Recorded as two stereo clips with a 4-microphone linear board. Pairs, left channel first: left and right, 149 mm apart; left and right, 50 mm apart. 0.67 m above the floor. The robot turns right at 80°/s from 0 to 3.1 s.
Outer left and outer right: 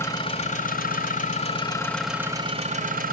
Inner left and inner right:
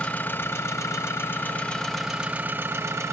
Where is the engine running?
15° left, 2.0 m; by 3.1 s 95° right, 2.0 m.